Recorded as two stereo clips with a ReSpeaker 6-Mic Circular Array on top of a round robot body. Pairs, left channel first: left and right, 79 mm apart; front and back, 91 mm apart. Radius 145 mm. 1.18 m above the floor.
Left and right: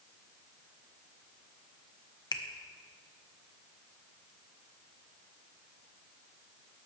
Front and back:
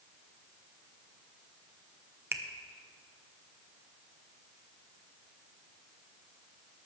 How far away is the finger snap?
About 1.0 m.